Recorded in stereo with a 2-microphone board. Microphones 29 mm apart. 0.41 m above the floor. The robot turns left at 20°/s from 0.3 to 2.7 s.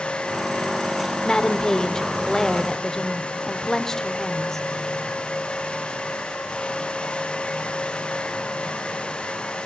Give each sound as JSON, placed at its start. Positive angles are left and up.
{"t": 1.2, "sound": "a woman speaking", "side_deg": 25, "distance_m": 0.9}